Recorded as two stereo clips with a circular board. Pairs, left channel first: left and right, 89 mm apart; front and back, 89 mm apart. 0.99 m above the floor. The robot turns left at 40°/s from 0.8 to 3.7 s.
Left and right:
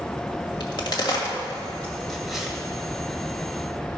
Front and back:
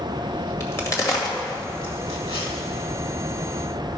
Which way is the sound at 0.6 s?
60° left.